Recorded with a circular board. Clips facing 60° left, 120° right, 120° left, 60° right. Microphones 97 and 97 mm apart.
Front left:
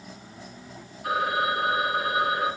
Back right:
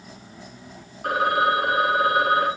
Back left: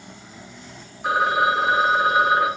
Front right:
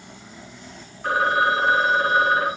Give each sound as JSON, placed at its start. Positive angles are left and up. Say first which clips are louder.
{"t": 1.0, "sound": "a phone ringing", "louder": "back right 5 dB, even", "azimuth_deg": -160, "distance_m": 6.0}